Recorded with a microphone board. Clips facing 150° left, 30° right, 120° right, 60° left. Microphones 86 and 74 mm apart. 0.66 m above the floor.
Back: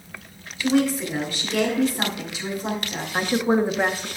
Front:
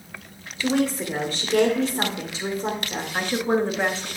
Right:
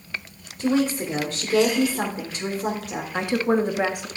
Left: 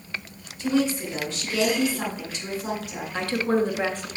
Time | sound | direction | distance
0.6 | a woman speaking | 80° right | 2 m
3.1 | a woman speaking | 155° right | 1.0 m